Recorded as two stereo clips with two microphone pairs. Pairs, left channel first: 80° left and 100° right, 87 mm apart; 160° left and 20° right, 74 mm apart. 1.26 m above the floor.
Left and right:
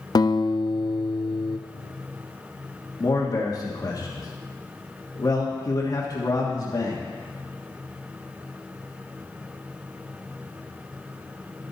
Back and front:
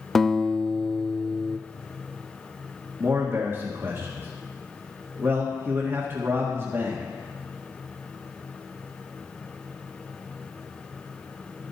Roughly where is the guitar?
Left.